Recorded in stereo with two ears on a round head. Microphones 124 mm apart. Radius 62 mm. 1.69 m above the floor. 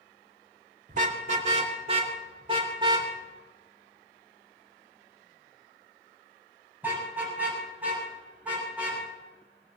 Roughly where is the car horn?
Right.